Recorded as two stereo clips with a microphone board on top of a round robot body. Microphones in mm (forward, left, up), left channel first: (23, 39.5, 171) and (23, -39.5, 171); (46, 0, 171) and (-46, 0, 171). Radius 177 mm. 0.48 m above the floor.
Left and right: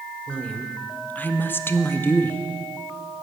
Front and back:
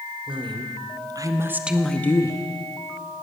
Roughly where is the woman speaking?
Behind.